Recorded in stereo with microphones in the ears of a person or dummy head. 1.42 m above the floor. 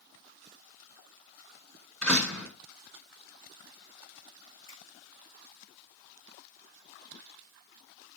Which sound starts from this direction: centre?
A door slam, at 2.0 s.